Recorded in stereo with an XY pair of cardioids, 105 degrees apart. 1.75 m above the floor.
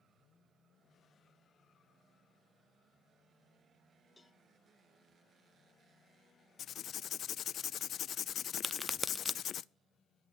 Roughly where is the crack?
Ahead.